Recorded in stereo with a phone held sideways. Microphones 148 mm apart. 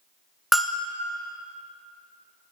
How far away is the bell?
About 0.6 m.